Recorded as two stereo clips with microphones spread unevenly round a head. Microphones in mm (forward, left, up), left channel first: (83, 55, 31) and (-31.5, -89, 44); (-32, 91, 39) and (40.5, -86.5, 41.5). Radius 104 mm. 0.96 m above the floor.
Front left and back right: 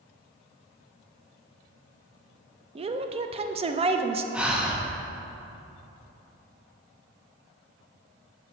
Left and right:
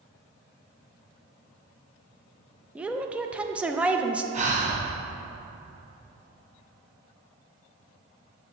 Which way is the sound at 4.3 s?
40° right.